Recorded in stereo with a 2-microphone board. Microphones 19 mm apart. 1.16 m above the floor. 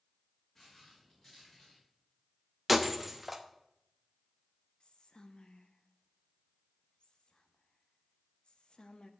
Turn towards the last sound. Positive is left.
turn(degrees=60)  # may be behind; listen again after turning